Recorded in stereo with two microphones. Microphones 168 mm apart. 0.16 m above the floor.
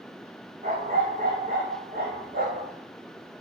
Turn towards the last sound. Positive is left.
turn(degrees=-65)  # may be behind; listen again after turning